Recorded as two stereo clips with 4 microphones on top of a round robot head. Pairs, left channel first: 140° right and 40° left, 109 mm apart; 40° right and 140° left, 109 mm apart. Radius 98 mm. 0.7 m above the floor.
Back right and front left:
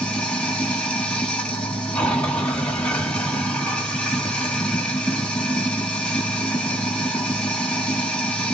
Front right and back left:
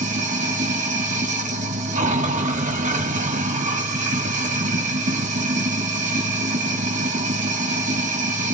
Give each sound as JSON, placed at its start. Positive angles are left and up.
{"t": 0.0, "sound": "running water", "azimuth_deg": 135, "distance_m": 1.8}